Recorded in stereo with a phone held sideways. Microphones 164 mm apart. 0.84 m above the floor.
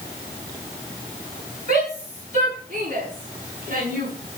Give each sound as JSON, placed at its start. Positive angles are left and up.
{"t": 1.7, "sound": "a shout", "side_deg": -45, "distance_m": 8.0}